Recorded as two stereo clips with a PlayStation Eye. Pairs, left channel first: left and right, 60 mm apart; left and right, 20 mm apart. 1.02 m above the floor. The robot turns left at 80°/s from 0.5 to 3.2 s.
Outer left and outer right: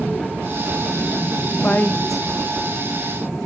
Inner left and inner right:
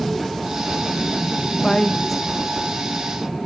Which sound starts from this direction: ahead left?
A woman speaking, at 1.6 s.